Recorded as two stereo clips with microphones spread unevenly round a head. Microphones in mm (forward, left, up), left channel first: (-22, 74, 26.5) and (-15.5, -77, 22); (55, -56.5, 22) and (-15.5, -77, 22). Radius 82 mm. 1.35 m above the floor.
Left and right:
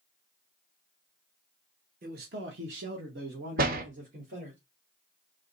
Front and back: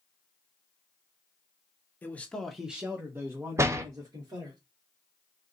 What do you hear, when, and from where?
2.0 s a man speaking: 50° right, 1.0 m; by 4.6 s 130° right, 2 m
3.6 s a door slam: 115° right, 0.8 m